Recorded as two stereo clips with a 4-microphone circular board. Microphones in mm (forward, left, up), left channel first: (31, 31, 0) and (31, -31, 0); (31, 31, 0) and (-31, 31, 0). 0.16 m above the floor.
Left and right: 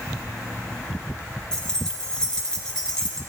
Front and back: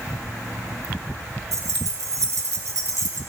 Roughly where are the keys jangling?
Behind.